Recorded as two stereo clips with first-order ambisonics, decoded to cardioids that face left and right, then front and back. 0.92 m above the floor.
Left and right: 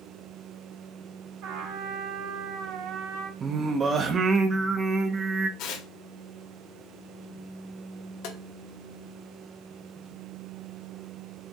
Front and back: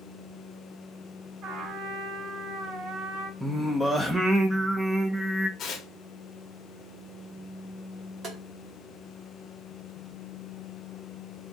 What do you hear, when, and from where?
1.4 s a trumpet: 125° right, 2.5 m
3.4 s singing: 100° right, 0.6 m
5.6 s tearing paper: 60° left, 0.8 m
8.2 s tapping: 115° left, 1.1 m